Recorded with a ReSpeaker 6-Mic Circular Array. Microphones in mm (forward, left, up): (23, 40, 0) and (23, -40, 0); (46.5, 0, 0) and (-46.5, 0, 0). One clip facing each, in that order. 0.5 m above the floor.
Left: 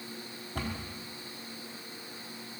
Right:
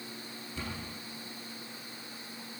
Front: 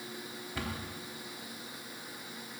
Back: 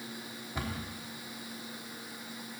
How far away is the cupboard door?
About 3.5 m.